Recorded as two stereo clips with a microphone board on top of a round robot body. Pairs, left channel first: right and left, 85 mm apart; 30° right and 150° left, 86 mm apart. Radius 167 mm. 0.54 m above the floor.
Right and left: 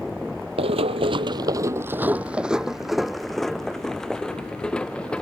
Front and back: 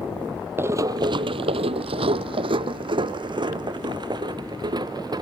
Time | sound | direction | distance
0.6 | running footsteps | 85° left | ?